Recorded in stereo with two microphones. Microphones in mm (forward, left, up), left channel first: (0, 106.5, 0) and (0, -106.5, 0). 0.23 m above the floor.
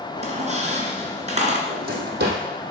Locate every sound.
0.2 s a squeak: 35° right (ahead or behind), 2 m
1.7 s a drawer: 55° right (ahead or behind), 2.5 m